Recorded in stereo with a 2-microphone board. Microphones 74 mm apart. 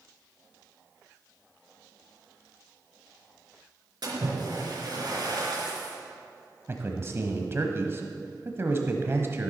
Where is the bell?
No bell in this recording.